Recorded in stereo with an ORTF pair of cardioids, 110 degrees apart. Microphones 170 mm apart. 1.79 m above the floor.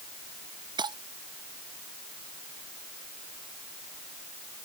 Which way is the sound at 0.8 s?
25° right.